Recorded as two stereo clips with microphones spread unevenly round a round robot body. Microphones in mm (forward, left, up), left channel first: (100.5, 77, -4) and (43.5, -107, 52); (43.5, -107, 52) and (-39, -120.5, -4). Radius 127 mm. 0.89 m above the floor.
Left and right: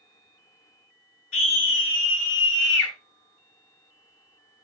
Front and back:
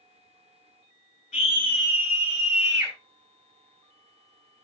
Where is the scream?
70° left, 6 m; by 2.9 s 85° left, 4.5 m.